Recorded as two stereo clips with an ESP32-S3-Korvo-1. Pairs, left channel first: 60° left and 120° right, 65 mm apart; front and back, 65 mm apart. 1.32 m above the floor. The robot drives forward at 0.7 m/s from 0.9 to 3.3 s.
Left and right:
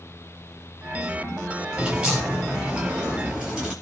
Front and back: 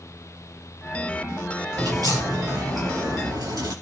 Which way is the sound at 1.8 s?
165° left.